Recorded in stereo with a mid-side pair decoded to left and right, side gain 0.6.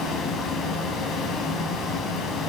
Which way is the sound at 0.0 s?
45° left.